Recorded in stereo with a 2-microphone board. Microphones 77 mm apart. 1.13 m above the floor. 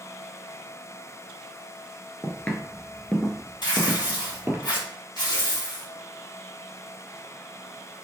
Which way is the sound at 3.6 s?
75° left (ahead or behind).